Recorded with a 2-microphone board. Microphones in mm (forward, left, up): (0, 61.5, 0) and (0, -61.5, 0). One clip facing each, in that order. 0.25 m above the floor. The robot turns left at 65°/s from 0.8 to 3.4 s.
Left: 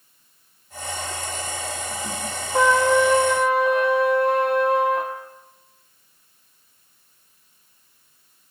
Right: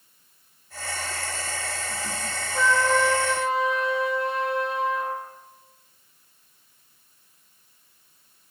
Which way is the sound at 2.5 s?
110° left.